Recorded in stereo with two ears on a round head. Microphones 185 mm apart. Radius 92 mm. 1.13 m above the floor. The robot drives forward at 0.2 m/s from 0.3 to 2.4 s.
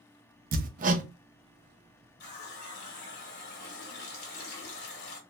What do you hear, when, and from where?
0.5 s hammering: 40° right (ahead or behind), 0.6 m; by 1.1 s 35° right (ahead or behind), 0.6 m
2.2 s a running tap: 50° left (ahead or behind), 1.0 m